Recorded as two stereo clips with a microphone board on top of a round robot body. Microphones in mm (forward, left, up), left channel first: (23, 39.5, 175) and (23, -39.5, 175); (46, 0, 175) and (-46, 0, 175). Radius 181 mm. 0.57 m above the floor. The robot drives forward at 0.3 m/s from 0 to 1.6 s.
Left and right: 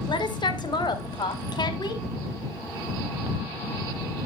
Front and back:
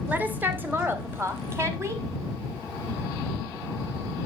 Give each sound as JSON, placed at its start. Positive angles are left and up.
{"t": 0.1, "sound": "a woman speaking", "azimuth_deg": 110, "distance_m": 2.0}